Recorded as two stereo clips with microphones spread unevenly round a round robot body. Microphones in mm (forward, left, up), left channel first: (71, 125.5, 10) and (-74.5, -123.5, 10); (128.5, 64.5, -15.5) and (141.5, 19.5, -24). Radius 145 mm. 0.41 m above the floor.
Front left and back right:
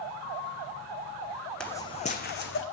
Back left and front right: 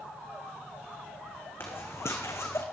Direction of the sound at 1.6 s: 145° left.